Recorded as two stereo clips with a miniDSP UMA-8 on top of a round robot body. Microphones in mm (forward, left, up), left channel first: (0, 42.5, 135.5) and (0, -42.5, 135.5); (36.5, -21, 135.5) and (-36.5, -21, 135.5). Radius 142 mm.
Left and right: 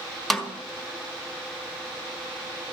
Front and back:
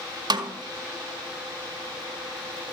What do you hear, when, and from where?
0.3 s a snare drum: straight behind, 1.8 m